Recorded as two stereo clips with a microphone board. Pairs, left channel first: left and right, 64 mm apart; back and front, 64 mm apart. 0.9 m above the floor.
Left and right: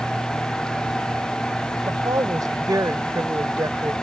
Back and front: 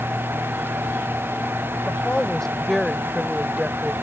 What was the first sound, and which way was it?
A woman speaking, 110° right.